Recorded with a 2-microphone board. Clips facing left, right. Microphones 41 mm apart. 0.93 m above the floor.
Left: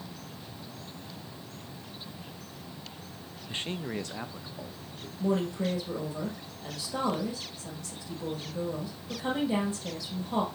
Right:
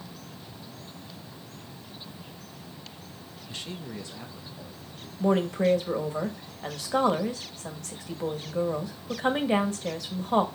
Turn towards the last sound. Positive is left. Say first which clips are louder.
# right 5 dB
turn(degrees=-60)  # may be behind; listen again after turning